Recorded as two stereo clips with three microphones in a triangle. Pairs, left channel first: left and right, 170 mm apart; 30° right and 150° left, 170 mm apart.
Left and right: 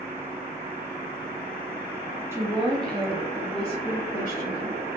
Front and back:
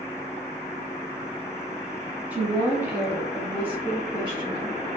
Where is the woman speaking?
140° right, 1.2 m; by 4.8 s 70° left, 2.0 m.